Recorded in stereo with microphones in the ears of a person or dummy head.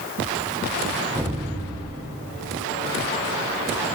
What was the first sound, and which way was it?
An explosion, 15° right (ahead or behind).